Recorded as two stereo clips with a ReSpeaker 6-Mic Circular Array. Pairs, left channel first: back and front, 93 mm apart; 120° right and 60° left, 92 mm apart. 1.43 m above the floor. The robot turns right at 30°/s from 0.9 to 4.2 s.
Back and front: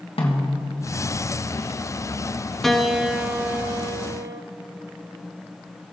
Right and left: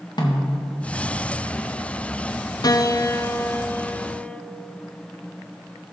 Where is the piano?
95° right, 0.6 m; by 4.4 s 45° right, 0.6 m.